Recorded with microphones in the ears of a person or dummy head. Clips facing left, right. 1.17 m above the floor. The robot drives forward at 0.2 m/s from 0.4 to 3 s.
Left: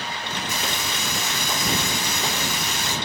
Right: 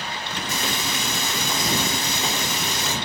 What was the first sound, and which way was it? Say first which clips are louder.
Frying: right 4 dB; 20° right (ahead or behind).